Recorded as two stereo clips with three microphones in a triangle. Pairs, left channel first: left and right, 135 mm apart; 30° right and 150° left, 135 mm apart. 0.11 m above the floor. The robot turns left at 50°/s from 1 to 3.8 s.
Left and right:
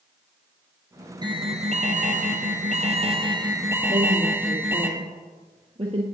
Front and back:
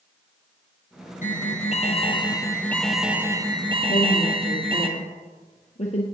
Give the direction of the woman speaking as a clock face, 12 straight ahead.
2 o'clock.